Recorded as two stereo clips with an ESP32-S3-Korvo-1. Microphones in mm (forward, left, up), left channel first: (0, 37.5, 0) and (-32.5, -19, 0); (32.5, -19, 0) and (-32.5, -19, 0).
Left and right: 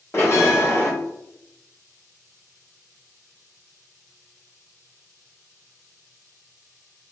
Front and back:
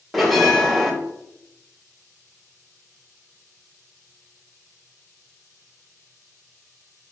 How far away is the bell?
About 1.1 m.